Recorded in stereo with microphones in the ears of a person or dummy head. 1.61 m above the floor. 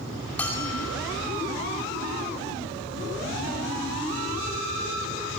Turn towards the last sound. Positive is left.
turn(degrees=10)  # may be behind; listen again after turning